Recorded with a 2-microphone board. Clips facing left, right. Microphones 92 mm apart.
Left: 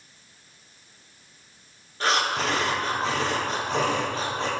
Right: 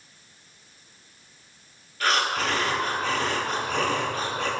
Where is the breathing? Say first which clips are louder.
Even; 30° left (ahead or behind), 2 m.